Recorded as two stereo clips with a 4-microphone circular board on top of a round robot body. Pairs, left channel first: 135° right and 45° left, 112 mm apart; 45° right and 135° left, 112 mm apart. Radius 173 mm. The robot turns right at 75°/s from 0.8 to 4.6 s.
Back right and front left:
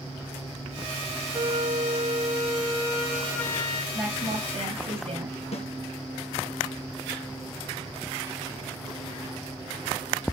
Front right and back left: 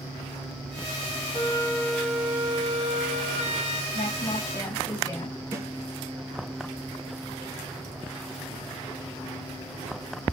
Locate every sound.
1.3 s a flute: 5° right, 1.5 m; by 3.8 s straight behind, 1.5 m
3.9 s a woman speaking: 30° right, 3.5 m; by 5.4 s 20° left, 3.5 m
5.5 s a snare drum: 160° right, 1.9 m